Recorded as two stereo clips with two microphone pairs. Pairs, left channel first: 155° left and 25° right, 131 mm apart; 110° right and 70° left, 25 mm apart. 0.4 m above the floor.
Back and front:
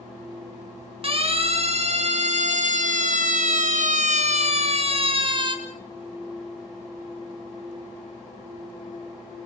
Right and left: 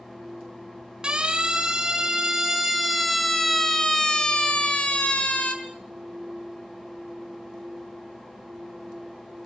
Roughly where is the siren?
Ahead.